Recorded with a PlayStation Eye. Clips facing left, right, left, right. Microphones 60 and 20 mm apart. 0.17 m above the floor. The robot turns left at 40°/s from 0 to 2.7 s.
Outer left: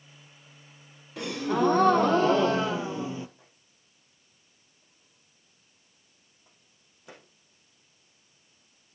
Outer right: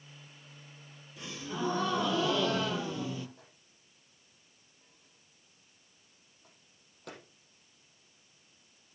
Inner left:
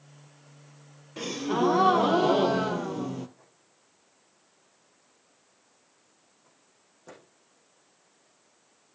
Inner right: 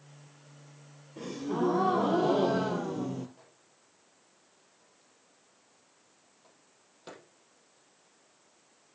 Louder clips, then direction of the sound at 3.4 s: Outer right 1 dB, inner right 1 dB; 70° right (ahead or behind).